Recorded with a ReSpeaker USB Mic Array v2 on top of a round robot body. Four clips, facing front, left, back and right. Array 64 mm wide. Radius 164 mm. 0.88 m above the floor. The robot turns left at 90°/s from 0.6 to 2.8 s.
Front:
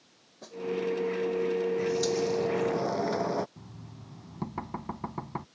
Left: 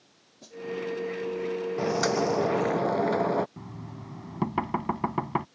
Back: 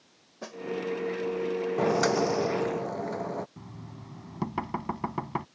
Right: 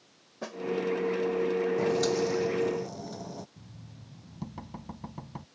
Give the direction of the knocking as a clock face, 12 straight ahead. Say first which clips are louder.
Left 10 dB, back 3 dB; 8 o'clock.